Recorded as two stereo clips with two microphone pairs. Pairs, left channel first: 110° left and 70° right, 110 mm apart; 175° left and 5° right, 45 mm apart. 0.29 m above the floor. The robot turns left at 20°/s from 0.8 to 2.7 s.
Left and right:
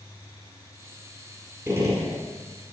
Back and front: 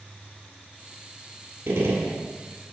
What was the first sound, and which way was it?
A gunshot, 5° right.